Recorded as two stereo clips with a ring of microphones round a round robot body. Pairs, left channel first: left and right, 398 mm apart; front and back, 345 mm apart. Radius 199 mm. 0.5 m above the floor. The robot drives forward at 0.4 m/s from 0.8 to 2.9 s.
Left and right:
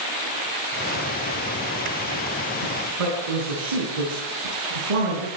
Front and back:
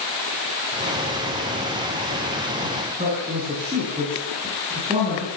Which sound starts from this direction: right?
A man speaking, at 2.6 s.